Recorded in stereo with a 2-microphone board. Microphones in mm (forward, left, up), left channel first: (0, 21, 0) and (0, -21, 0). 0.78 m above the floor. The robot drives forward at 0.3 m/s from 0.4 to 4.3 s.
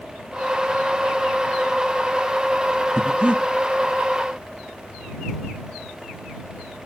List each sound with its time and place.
3.0 s breathing: 25° right (ahead or behind), 1.0 m